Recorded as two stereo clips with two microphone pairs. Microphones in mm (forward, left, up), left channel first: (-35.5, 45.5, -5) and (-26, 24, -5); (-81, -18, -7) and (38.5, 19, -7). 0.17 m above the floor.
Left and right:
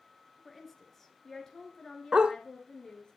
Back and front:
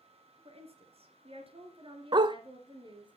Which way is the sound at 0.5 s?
35° left.